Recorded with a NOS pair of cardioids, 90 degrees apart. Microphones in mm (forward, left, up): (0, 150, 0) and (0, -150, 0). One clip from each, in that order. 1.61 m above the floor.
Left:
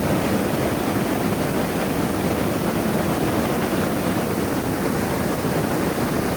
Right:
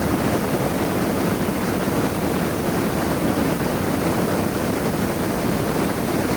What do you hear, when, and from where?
Only background noise.